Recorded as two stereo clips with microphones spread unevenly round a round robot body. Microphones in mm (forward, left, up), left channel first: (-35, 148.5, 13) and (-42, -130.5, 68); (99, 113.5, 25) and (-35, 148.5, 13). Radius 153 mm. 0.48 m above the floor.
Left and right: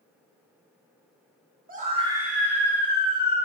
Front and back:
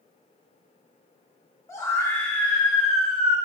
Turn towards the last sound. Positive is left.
turn(degrees=85)